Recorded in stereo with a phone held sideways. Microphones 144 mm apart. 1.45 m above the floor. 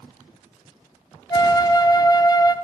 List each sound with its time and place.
1.3 s a flute: 25° left (ahead or behind), 0.7 m